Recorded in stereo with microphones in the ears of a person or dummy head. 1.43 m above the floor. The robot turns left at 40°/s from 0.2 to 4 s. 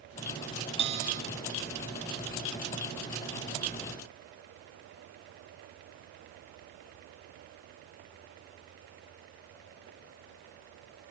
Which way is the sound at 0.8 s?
30° right (ahead or behind).